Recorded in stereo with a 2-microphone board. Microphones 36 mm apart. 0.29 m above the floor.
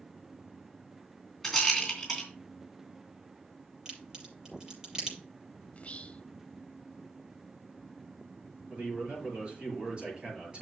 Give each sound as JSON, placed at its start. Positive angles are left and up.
{"t": 1.4, "sound": "a rattle", "side_deg": 10, "distance_m": 3.0}
{"t": 3.9, "sound": "a crack", "side_deg": -15, "distance_m": 6.5}
{"t": 5.7, "sound": "whispering", "side_deg": 35, "distance_m": 1.1}
{"t": 8.7, "sound": "a man speaking", "side_deg": -25, "distance_m": 6.0}